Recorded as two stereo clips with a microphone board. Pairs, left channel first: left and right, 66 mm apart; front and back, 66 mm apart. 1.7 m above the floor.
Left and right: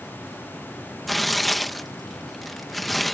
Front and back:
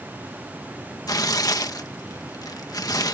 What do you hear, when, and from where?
1.1 s tearing paper: straight ahead